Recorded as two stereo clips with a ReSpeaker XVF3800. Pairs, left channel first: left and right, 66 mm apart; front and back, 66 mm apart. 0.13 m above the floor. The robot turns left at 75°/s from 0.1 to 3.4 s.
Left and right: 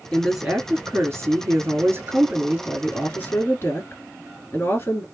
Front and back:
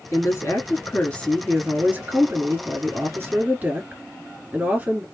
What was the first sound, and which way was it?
A woman speaking, 10° left.